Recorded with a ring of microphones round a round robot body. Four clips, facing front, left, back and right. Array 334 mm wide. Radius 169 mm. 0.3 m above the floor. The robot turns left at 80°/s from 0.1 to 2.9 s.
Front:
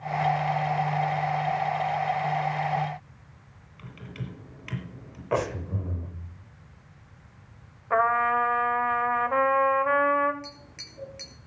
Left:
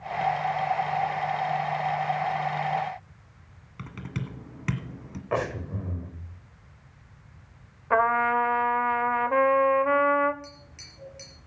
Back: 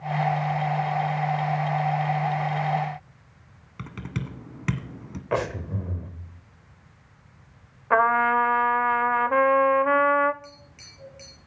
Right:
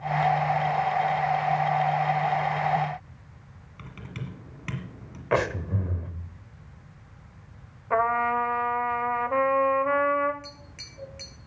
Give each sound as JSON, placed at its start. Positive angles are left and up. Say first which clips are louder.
{"t": 3.8, "sound": "typing on a keyboard", "louder": "left 4 dB, back 6 dB", "azimuth_deg": 160, "distance_m": 1.9}
{"t": 5.3, "sound": "breathing", "louder": "right 3 dB, back 1 dB", "azimuth_deg": -105, "distance_m": 1.6}
{"t": 7.9, "sound": "a trumpet", "louder": "left 1 dB, back 3 dB", "azimuth_deg": 160, "distance_m": 0.6}
{"t": 10.4, "sound": "tapping", "louder": "right 1 dB, front 2 dB", "azimuth_deg": -30, "distance_m": 5.0}